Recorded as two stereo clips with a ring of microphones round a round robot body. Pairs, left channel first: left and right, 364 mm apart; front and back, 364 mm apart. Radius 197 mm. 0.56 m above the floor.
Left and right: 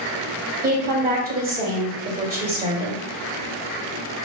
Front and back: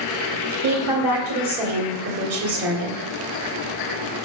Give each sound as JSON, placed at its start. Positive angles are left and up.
{"t": 0.6, "sound": "a woman speaking", "azimuth_deg": -155, "distance_m": 1.9}